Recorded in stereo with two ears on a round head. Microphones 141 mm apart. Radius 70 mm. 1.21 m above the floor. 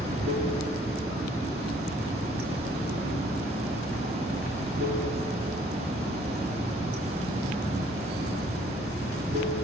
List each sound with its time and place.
0.0 s running water: 70° right (ahead or behind), 3.5 m